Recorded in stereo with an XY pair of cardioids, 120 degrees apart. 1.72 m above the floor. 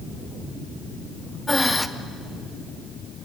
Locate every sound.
1.5 s breathing: 10° left, 0.8 m